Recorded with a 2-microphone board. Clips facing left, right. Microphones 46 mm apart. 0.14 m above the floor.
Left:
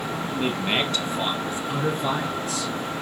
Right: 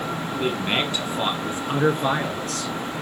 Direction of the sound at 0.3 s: 10° left (ahead or behind).